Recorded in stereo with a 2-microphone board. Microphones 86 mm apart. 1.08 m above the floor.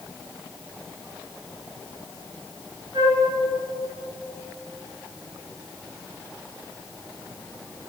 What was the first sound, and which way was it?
A flute, 65° right (ahead or behind).